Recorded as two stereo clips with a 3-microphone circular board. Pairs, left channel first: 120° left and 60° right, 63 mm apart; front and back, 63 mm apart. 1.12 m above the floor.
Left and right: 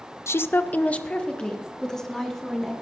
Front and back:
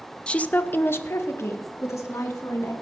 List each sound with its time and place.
0.3 s a woman speaking: 75° left, 0.6 m; by 2.7 s 35° left, 2 m